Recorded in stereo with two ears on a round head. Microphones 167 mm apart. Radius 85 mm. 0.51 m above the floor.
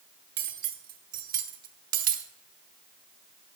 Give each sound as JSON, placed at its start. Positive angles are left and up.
{"t": 0.4, "sound": "cutlery clinking", "side_deg": -50, "distance_m": 1.1}